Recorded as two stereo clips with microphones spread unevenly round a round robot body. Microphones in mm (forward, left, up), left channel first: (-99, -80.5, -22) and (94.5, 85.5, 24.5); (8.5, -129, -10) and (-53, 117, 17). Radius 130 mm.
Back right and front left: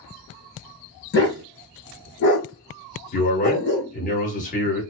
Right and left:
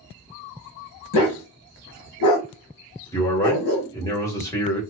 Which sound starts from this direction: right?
A dog barking, at 1.1 s.